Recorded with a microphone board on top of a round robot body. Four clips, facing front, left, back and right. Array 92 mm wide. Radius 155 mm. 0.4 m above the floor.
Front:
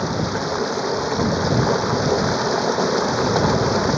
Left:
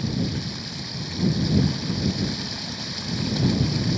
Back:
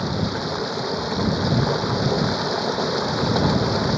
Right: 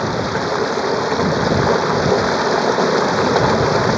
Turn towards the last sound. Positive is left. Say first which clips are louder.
# right 9 dB, front 2 dB
turn(degrees=-80)